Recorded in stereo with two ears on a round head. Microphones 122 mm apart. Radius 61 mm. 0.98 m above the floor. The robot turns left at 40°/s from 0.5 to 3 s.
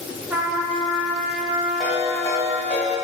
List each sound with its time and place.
0.3 s a trumpet: 165° right, 0.5 m; by 2.8 s 100° left, 0.5 m
1.8 s a ringtone: straight behind, 0.7 m; by 2.9 s 130° left, 0.7 m